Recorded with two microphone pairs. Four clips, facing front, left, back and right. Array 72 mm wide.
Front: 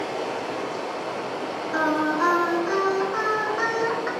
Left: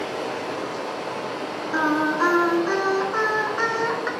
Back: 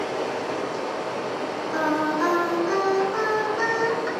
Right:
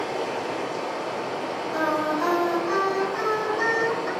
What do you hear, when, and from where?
0.0 s running water: 130° left, 1.6 m
1.7 s singing: 65° left, 0.5 m